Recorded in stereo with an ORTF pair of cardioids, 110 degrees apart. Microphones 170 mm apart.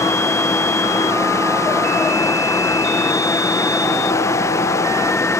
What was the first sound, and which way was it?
A fan, 15° left.